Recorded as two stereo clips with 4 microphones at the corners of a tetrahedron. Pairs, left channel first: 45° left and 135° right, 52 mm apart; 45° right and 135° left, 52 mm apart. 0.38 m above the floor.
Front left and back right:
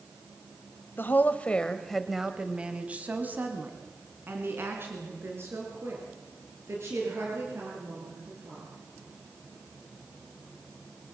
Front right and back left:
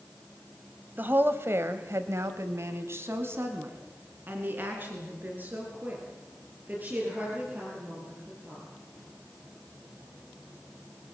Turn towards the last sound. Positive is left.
turn(degrees=-165)